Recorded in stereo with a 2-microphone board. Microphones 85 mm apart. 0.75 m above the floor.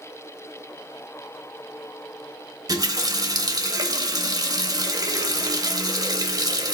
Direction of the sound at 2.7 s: 45° right (ahead or behind).